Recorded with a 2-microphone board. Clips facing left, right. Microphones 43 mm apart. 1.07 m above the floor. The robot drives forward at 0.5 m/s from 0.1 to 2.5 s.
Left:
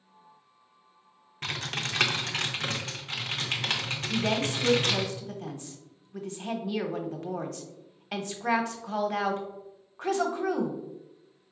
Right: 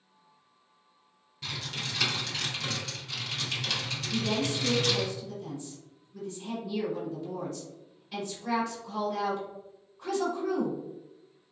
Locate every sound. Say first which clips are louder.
1.4 s typing on a keyboard: left 4 dB; 55° left (ahead or behind), 0.6 m; by 5.1 s 40° left (ahead or behind), 0.8 m
4.1 s a woman speaking: left 2 dB; 60° left (ahead or behind), 0.8 m